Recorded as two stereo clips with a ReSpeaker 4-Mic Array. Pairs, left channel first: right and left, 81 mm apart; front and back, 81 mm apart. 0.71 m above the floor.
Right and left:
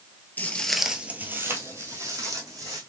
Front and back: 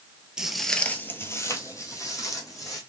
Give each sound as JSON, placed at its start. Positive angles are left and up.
{"t": 0.4, "sound": "footsteps", "azimuth_deg": -115, "distance_m": 0.7}